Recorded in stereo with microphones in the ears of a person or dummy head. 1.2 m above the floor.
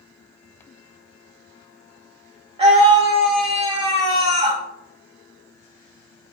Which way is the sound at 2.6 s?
35° right (ahead or behind).